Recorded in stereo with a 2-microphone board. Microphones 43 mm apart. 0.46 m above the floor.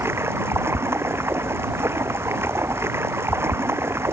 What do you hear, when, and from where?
0.0 s running water: 80° right